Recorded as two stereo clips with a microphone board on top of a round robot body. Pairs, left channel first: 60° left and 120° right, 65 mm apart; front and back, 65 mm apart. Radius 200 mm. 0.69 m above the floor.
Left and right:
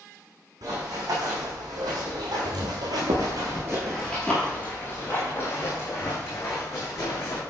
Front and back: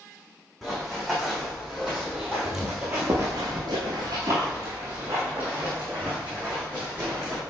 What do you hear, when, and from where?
0.6 s running footsteps: 90° right, 3 m; by 7.4 s 105° left, 4 m